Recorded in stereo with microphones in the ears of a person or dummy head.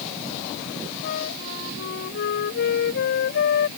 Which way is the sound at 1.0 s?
55° left (ahead or behind).